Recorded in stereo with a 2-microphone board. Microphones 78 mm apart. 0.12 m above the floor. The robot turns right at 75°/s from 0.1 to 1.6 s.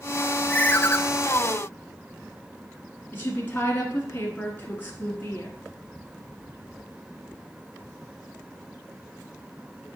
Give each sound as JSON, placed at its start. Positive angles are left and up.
{"t": 0.5, "sound": "a ringtone", "azimuth_deg": 35, "distance_m": 0.5}
{"t": 3.1, "sound": "a woman speaking", "side_deg": 25, "distance_m": 1.4}